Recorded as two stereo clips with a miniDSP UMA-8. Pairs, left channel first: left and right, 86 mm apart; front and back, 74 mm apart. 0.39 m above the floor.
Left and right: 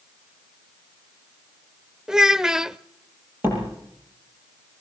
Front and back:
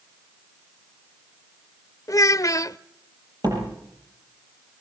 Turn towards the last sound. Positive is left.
turn(degrees=-155)